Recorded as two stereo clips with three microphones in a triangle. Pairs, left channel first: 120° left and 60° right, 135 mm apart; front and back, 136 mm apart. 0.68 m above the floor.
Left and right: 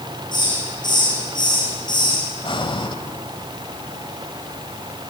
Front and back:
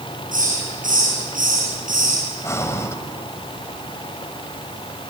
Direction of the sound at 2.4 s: 70° left.